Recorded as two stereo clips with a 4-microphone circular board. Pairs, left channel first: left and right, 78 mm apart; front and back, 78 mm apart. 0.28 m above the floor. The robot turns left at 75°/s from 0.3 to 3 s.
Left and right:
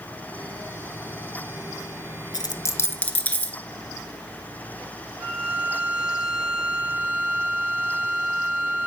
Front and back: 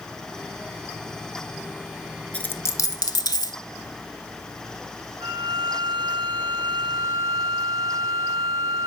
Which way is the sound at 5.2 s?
140° right.